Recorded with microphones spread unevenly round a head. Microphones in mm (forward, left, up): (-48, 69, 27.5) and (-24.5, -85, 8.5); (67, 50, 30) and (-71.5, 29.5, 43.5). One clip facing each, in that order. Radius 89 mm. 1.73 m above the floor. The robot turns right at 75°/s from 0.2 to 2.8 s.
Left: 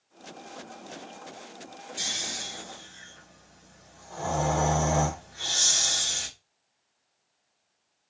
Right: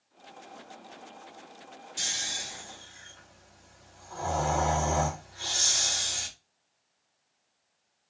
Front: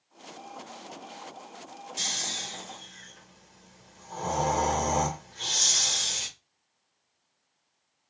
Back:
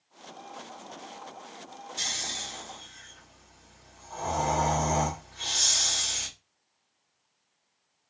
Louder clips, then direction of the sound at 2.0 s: Left 3 dB, front 1 dB; 10° right.